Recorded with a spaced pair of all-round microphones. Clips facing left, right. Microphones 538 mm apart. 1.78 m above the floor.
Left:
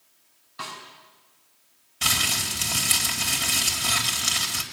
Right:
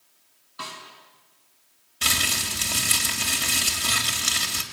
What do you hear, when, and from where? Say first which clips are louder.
0.6 s a snare drum: even; 20° left (ahead or behind), 5.5 m
2.0 s crumpling: right 1 dB; 10° left (ahead or behind), 2 m